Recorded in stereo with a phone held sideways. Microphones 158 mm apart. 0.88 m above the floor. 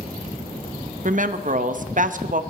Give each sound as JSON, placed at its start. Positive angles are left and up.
{"t": 1.1, "sound": "a woman speaking", "side_deg": -55, "distance_m": 0.7}